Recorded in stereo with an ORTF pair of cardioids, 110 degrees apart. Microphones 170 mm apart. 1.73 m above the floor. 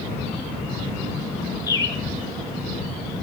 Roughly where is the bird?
Ahead.